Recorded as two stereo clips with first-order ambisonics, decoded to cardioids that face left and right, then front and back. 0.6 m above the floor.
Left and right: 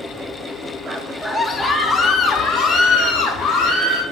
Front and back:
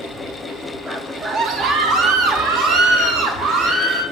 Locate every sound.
0.9 s a scream: 125° right, 0.7 m; by 4.0 s 135° left, 2.5 m